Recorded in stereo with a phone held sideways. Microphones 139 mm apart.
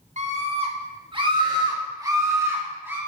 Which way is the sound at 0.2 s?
55° right (ahead or behind).